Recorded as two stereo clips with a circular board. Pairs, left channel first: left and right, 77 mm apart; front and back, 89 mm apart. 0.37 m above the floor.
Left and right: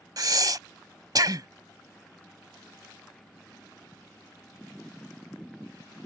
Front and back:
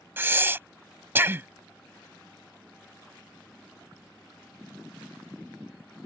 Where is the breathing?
115° right.